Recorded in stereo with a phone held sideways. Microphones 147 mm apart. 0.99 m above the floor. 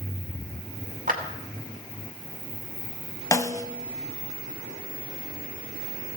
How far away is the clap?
About 2.5 m.